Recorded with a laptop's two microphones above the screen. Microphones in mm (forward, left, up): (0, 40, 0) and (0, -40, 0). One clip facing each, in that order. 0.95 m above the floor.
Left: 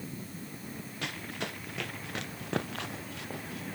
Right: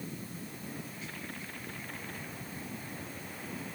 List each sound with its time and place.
1.0 s running footsteps: 75° left (ahead or behind)